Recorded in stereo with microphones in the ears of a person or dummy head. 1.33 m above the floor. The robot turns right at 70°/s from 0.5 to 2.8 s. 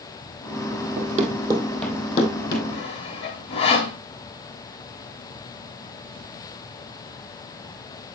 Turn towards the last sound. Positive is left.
turn(degrees=30)  # may be behind; listen again after turning